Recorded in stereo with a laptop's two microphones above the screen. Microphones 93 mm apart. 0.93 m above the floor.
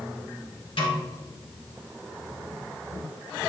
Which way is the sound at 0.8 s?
75° left (ahead or behind).